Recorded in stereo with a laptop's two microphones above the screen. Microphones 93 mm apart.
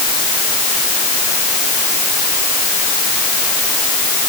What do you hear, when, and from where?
Only background noise.